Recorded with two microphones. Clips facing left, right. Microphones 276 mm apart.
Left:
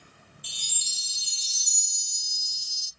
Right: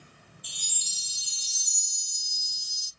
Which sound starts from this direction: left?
A chime, at 0.4 s.